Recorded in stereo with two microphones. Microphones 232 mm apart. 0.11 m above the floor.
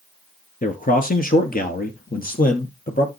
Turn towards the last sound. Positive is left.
turn(degrees=40)  # may be behind; listen again after turning